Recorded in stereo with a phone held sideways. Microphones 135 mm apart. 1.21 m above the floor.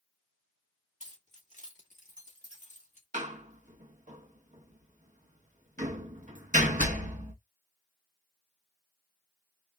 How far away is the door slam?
About 0.9 m.